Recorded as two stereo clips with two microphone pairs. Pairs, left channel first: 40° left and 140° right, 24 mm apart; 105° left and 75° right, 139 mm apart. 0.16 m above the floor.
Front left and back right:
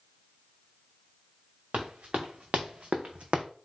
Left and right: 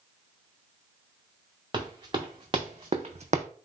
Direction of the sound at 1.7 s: 130° right.